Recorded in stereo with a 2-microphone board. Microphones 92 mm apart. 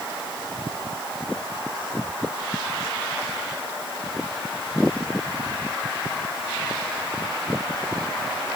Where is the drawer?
I don't hear a drawer.